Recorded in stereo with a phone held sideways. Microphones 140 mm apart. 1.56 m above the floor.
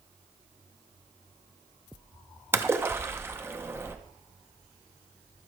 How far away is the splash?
About 0.6 m.